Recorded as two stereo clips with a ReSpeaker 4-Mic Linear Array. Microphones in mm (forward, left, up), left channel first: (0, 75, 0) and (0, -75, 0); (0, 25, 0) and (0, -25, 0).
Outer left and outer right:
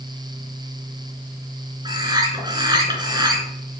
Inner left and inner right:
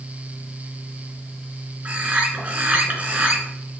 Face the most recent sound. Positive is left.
turn(degrees=-30)  # may be behind; listen again after turning